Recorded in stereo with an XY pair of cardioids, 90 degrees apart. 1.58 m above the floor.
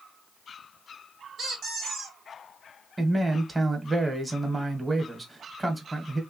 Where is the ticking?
I don't hear ticking.